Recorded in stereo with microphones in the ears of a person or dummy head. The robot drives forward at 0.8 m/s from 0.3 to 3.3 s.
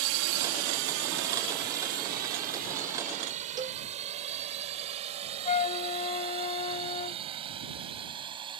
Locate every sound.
0.0 s a drone: 85° right; by 8.6 s 25° right (ahead or behind)
3.6 s a cowbell: 25° right (ahead or behind)
5.5 s a flute: 35° left (ahead or behind)